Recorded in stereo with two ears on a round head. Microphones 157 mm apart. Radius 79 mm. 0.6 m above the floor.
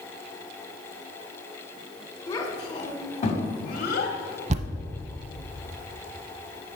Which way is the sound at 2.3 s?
20° left (ahead or behind).